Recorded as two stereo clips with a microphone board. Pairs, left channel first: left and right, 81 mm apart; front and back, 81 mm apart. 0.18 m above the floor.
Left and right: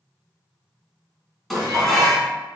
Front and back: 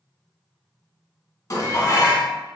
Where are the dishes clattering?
Straight ahead, 1.1 m.